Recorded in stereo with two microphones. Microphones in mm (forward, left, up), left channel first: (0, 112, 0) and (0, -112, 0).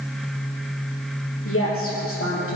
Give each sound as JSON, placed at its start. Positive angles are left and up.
{"t": 1.4, "sound": "a woman speaking", "side_deg": 70, "distance_m": 4.0}